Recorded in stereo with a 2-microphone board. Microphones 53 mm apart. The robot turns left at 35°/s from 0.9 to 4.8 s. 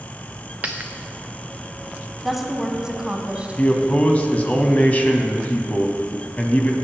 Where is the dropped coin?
35° right (ahead or behind), 1.0 m; by 0.9 s 30° right (ahead or behind), 1.0 m.